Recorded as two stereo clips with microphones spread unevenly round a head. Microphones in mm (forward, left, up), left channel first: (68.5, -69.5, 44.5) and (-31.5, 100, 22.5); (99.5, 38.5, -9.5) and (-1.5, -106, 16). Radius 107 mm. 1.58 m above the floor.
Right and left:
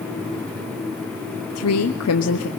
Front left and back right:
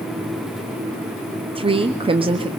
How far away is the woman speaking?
About 0.8 m.